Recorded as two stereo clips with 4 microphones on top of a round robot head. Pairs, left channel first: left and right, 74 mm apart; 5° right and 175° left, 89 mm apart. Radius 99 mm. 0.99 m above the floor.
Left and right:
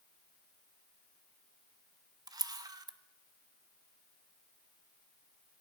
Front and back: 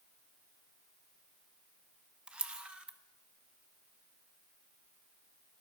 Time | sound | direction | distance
2.3 | a camera shutter | 110° right | 1.1 m